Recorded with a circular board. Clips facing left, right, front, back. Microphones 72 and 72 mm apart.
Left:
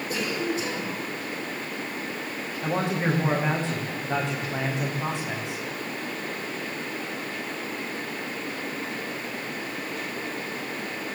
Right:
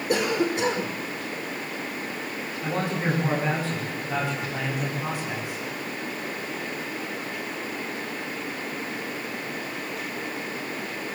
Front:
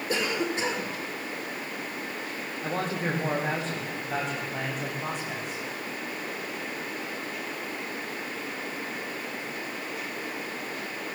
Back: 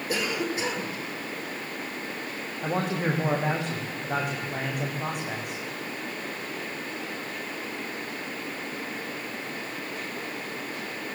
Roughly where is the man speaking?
Behind.